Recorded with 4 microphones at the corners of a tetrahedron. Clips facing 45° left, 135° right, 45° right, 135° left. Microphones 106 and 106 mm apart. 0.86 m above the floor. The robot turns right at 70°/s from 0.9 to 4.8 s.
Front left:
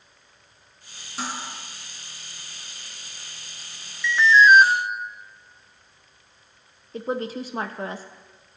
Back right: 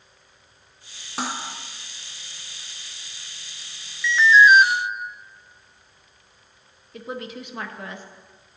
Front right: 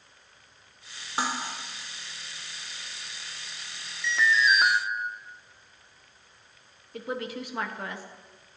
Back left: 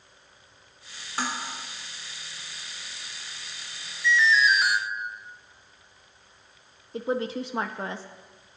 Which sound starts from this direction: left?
A woman speaking, at 6.9 s.